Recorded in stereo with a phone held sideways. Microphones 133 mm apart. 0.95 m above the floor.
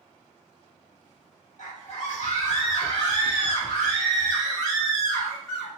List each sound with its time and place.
1.6 s a scream: 55° left (ahead or behind), 1.2 m; by 5.7 s centre (ahead or behind), 2.5 m